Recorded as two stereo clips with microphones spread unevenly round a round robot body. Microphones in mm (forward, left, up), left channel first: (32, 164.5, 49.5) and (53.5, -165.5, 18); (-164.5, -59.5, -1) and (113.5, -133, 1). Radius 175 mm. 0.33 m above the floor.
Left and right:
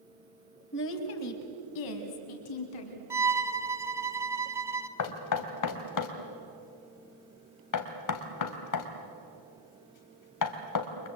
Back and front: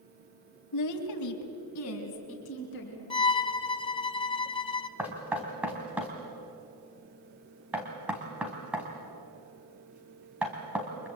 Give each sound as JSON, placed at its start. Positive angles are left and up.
{"t": 0.7, "sound": "a woman speaking", "azimuth_deg": 155, "distance_m": 2.5}
{"t": 3.1, "sound": "a violin", "azimuth_deg": -145, "distance_m": 0.9}
{"t": 5.0, "sound": "knocking", "azimuth_deg": 70, "distance_m": 2.0}